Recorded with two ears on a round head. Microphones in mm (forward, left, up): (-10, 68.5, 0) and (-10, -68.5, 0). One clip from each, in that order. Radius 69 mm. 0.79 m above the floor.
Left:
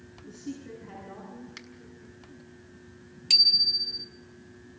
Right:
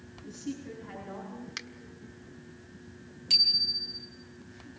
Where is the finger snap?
35° right (ahead or behind), 1.6 m.